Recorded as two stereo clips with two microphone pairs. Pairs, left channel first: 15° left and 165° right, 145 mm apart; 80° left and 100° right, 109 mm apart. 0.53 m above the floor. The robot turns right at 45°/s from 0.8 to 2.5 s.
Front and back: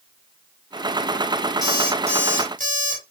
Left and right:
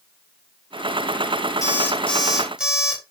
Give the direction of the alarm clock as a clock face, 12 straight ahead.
8 o'clock.